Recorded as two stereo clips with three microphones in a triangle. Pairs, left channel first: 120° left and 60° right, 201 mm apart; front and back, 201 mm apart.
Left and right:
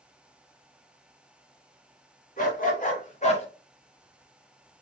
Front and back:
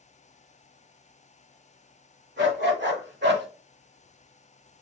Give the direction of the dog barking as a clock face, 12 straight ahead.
7 o'clock.